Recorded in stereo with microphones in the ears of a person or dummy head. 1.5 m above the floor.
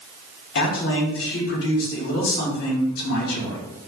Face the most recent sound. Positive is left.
turn(degrees=65)  # may be behind; listen again after turning